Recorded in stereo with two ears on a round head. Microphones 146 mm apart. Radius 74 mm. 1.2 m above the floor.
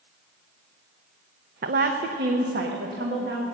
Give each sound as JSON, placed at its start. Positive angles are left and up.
{"t": 1.6, "sound": "a woman speaking", "side_deg": -55, "distance_m": 0.7}